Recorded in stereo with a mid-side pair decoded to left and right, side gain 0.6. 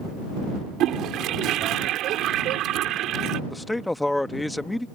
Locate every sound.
0.8 s a toilet flushing: 60° right
3.5 s a man speaking: 10° left